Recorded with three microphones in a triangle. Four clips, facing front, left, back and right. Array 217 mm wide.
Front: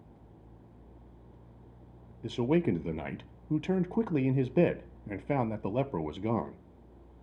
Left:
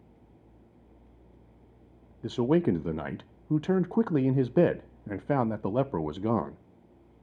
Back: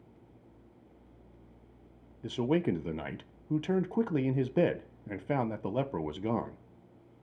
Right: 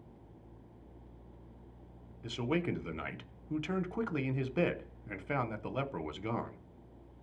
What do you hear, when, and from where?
2.2 s a man speaking: 85° left, 0.6 m